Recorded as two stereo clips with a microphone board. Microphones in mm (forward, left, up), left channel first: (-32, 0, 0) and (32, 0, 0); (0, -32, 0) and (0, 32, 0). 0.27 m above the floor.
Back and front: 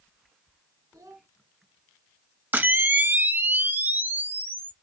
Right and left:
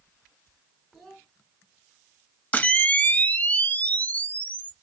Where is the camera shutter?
40° right, 0.6 m.